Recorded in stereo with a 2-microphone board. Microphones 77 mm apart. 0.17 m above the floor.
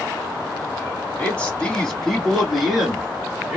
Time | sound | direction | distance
1.2 | a man speaking | 20° left (ahead or behind) | 1.2 m